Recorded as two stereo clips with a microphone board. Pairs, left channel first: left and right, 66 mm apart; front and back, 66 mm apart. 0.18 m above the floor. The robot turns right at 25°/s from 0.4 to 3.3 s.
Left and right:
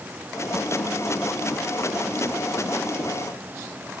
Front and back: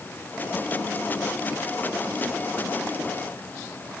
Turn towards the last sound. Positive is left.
No sound to turn to.